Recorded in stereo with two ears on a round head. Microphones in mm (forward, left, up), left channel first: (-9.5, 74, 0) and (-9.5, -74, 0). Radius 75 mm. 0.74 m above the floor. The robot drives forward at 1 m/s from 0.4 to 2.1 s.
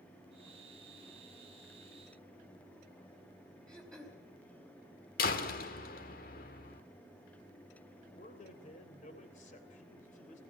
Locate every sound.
3.7 s throat clearing: 5° left (ahead or behind), 3.5 m
5.2 s a door slam: 55° left (ahead or behind), 1.6 m
8.1 s a man speaking: 45° left (ahead or behind), 3 m